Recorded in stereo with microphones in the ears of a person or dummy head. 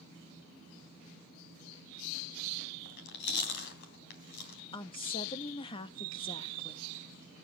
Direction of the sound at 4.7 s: 30° left (ahead or behind).